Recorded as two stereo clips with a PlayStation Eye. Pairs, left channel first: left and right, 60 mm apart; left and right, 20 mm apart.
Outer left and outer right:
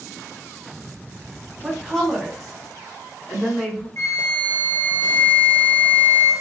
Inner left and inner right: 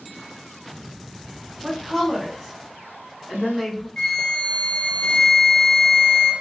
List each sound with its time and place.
1.6 s a woman speaking: centre (ahead or behind), 1.3 m; by 3.9 s 5° left (ahead or behind), 2 m
4.0 s a flute: 50° left (ahead or behind), 0.8 m